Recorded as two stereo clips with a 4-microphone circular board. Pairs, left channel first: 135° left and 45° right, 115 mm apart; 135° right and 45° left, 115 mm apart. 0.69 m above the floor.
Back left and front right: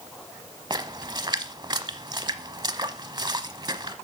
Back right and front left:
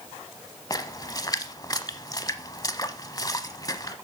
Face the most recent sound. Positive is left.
turn(degrees=-85)